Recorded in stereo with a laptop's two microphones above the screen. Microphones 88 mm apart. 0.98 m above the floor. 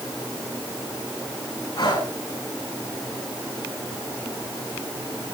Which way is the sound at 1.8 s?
60° left (ahead or behind).